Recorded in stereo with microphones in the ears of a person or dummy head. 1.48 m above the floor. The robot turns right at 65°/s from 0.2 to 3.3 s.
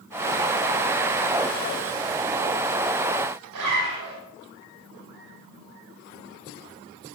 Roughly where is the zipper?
Right.